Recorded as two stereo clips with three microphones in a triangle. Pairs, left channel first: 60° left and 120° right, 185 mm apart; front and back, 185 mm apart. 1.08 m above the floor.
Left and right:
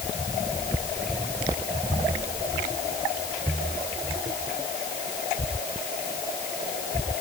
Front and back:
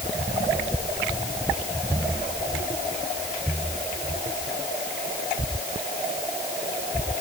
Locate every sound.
Only background noise.